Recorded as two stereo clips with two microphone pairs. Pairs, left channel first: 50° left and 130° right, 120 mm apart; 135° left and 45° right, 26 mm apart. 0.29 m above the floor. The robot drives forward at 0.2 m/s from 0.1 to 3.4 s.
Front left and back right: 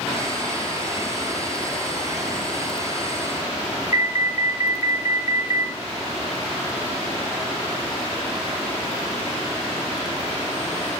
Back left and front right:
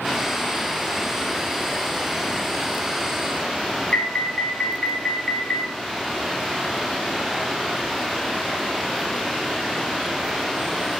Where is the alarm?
Straight behind, 3 m.